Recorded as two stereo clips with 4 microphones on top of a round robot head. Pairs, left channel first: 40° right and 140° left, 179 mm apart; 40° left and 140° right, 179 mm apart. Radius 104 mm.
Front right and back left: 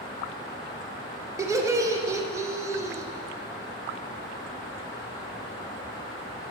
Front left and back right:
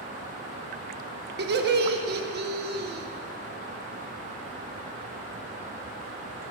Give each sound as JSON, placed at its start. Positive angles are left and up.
{"t": 1.4, "sound": "laughter", "azimuth_deg": -150, "distance_m": 0.6}